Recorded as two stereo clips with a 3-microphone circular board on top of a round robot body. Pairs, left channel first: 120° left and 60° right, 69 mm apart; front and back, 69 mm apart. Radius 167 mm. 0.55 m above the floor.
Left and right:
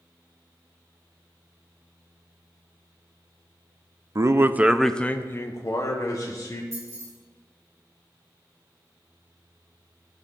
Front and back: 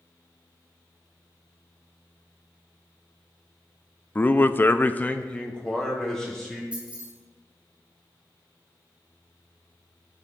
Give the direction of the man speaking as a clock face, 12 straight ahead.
2 o'clock.